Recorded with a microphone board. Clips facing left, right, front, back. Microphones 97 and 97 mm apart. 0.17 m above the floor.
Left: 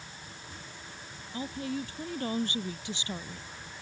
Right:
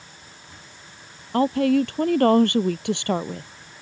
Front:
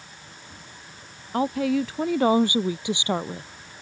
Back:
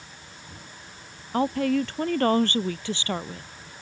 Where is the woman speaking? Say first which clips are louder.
Right 16 dB, even; 90° right; by 3.5 s 65° right.